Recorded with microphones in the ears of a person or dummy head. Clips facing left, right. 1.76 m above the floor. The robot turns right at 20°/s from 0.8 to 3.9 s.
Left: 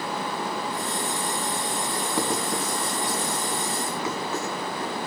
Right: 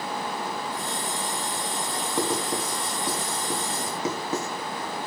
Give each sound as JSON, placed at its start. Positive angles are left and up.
{"t": 2.2, "sound": "writing", "side_deg": -5, "distance_m": 1.6}